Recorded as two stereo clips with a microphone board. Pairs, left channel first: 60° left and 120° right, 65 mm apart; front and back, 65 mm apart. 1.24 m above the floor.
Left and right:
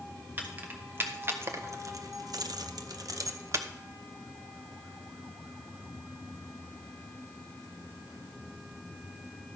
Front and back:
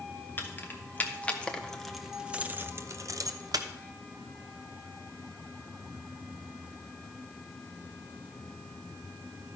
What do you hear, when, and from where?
0.4 s keys jangling: 55° right, 1.3 m; by 3.7 s 165° right, 0.8 m